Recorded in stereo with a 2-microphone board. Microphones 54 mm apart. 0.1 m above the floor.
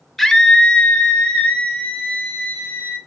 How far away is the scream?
About 1.2 m.